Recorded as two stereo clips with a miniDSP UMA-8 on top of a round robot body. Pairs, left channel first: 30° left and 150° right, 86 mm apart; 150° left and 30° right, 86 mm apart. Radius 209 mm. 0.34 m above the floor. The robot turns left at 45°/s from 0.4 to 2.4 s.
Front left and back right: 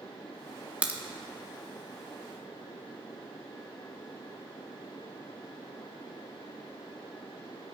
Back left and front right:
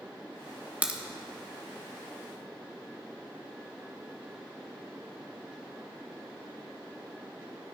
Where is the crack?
85° right, 1.7 m; by 1.0 s 95° right, 1.7 m.